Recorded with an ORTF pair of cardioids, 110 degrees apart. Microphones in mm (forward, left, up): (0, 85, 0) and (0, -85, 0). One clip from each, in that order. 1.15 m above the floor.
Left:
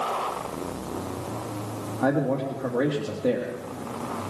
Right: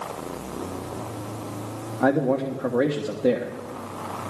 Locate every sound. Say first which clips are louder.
2.0 s a man speaking: right 3 dB; 20° right, 1.4 m